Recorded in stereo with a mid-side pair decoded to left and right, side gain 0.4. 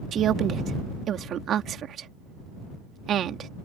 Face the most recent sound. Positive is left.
turn(degrees=-65)